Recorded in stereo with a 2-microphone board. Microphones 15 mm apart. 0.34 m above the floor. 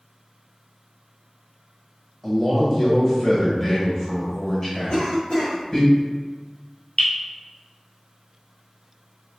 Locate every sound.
2.2 s a man speaking: 20° left (ahead or behind), 1.4 m
4.9 s a cough: 50° left (ahead or behind), 1.5 m
7.0 s dripping: 75° left (ahead or behind), 1.2 m